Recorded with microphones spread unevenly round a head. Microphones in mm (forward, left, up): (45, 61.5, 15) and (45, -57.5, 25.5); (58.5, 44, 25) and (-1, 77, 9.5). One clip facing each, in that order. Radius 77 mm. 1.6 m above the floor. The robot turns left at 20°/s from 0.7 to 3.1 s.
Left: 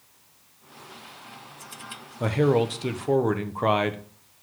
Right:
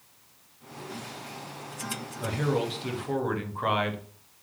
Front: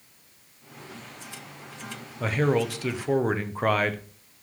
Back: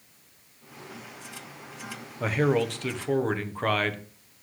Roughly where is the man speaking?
Ahead left.